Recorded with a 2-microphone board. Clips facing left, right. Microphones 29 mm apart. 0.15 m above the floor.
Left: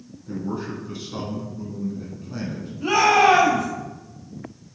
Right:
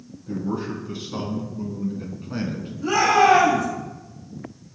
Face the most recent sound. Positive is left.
turn(degrees=65)  # may be behind; listen again after turning